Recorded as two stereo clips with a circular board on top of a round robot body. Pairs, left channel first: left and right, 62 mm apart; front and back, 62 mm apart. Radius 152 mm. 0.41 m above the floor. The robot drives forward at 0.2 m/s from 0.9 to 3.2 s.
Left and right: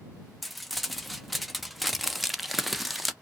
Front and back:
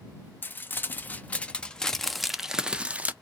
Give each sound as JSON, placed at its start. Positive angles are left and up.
{"t": 0.4, "sound": "crumpling", "azimuth_deg": 0, "distance_m": 0.6}